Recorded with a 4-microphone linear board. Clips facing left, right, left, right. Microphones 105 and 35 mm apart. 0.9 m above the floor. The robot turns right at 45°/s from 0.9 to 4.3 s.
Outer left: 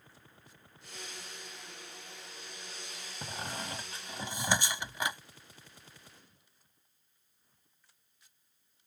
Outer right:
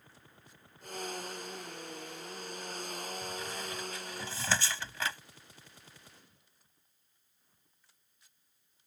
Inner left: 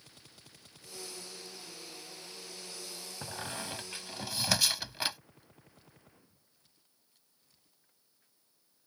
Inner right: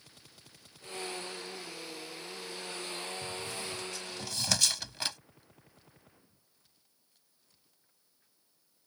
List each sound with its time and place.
3.2 s a squeak: 60° left (ahead or behind); by 5.2 s 15° left (ahead or behind)